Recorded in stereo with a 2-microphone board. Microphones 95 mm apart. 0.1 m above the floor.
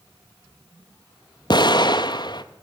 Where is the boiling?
No boiling in this recording.